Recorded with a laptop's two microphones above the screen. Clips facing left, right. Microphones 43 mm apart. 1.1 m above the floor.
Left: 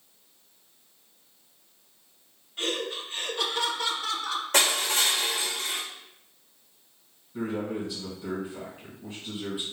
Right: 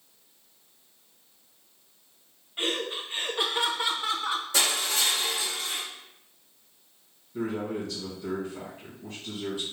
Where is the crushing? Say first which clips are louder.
Left 5 dB; 65° left (ahead or behind), 0.8 m.